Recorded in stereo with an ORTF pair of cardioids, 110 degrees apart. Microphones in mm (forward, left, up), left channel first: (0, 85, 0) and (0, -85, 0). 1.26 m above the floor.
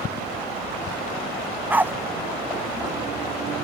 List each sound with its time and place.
1.7 s a dog barking: 10° right